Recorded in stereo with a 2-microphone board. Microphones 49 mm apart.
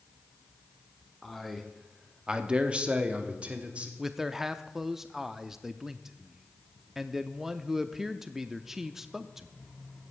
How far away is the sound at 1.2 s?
About 1.4 m.